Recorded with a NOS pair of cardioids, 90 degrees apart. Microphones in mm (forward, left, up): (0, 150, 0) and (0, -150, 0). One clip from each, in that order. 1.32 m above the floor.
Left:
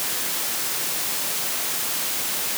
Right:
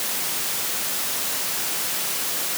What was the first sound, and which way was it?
Only background noise.